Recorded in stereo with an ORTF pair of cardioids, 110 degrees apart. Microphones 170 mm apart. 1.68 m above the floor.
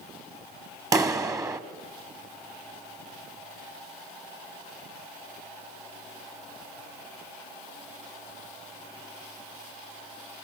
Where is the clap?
20° right, 1.2 m.